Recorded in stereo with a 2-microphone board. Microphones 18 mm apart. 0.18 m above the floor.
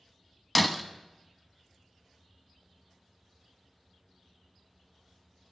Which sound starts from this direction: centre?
Breaking glass, at 0.6 s.